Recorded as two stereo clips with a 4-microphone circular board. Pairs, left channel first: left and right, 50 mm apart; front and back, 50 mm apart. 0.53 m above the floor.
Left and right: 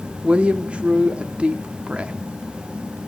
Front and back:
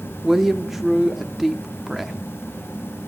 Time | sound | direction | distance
0.2 | a woman speaking | 105° right | 0.7 m